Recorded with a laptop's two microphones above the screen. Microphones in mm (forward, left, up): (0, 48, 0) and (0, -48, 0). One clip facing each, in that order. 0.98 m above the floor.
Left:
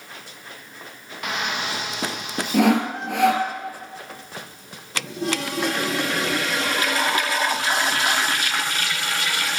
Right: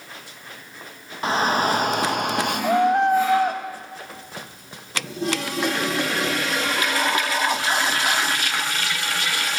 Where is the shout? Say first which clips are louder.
Right 7 dB; 30° right (ahead or behind), 1.0 m; by 3.5 s 60° right (ahead or behind), 1.3 m.